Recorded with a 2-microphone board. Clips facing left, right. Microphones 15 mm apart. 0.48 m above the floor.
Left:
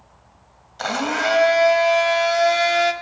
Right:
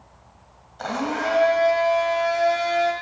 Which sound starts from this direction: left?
A blender, at 0.8 s.